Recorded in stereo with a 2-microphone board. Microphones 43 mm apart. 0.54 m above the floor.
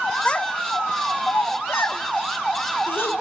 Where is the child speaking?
20° left (ahead or behind), 0.7 m; by 3.1 s 60° left (ahead or behind), 3 m.